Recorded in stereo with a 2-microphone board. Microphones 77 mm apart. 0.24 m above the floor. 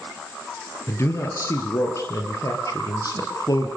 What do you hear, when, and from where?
0.9 s a man speaking: 40° left (ahead or behind), 4.5 m; by 3.7 s 60° left (ahead or behind), 5.5 m